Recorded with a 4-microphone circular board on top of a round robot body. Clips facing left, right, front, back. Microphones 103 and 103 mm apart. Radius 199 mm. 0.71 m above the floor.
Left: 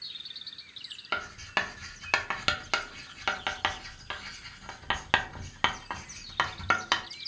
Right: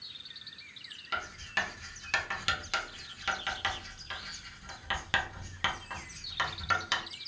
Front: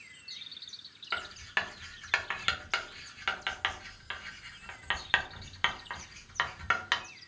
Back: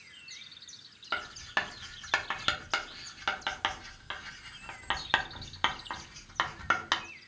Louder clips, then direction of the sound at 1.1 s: Left 3 dB, back 2 dB; 115° left.